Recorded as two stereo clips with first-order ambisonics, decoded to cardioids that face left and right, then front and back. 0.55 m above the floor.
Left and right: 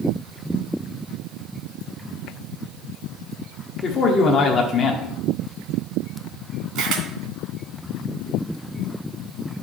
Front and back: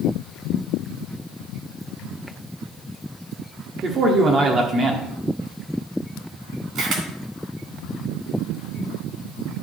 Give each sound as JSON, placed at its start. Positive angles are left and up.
{"t": 3.8, "sound": "a man speaking", "azimuth_deg": 135, "distance_m": 1.1}
{"t": 6.8, "sound": "a camera shutter", "azimuth_deg": -135, "distance_m": 2.5}